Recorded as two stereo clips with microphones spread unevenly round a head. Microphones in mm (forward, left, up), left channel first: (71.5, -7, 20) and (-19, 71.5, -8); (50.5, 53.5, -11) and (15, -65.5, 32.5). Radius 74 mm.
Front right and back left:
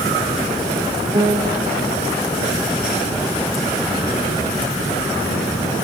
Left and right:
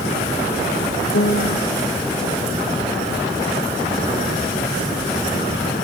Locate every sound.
1.1 s a piano: 80° left, 2.5 m